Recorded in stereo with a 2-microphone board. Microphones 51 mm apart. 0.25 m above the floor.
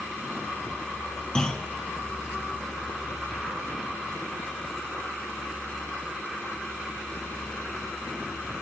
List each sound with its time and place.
1.4 s a clunk: 15° left (ahead or behind), 1.2 m